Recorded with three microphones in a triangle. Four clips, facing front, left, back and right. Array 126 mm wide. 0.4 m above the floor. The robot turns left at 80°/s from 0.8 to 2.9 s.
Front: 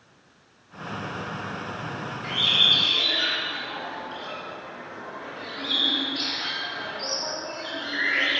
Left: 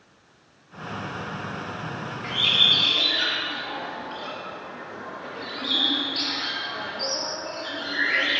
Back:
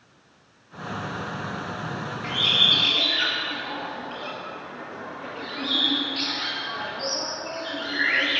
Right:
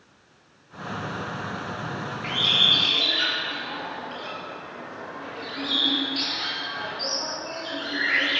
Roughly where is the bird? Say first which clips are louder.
Even, back 1 dB; behind.